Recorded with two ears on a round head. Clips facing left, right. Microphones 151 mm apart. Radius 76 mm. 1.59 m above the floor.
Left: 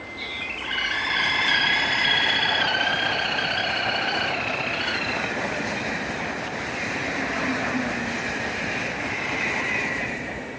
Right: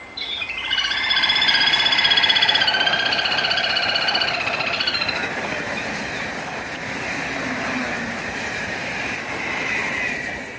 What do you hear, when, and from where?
0.2 s a bird: 45° right (ahead or behind), 3 m